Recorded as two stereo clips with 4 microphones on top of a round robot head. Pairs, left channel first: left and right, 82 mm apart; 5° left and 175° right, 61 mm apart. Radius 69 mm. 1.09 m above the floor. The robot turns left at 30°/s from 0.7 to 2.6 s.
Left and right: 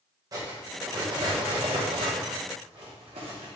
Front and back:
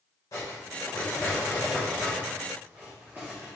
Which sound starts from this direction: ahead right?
Cutlery clinking, at 0.3 s.